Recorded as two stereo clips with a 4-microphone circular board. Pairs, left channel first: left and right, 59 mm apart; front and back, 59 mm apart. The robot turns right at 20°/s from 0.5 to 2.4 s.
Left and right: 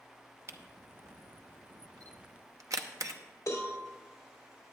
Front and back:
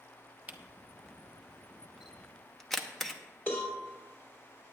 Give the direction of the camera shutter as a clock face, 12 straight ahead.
4 o'clock.